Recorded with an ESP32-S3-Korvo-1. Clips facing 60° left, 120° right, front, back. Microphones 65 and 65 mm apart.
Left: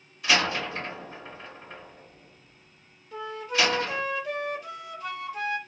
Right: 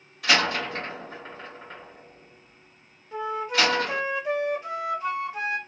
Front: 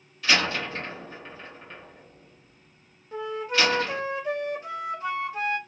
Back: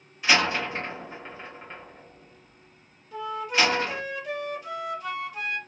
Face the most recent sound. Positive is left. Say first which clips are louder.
# right 3 dB, even
turn(degrees=-55)